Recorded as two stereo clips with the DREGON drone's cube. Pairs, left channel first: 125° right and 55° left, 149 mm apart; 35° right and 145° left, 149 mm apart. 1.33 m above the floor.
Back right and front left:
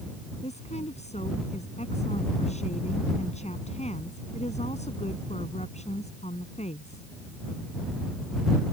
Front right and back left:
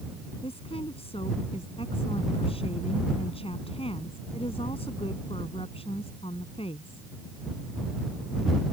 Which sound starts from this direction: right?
A woman speaking, at 0.4 s.